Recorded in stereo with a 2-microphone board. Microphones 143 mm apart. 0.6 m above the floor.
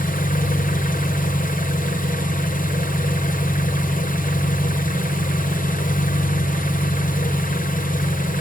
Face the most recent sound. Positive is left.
turn(degrees=75)  # may be behind; listen again after turning